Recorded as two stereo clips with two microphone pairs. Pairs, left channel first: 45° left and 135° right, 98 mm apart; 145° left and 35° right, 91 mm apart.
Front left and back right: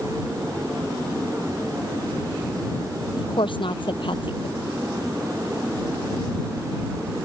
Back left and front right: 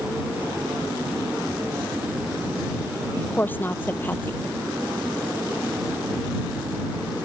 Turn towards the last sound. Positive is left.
turn(degrees=75)